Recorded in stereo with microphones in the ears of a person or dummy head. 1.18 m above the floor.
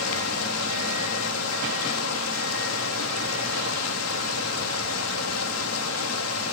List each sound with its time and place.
0.0 s running water: 80° left, 1.9 m